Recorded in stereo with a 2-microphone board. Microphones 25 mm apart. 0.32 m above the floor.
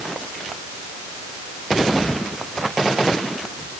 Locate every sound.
Only background noise.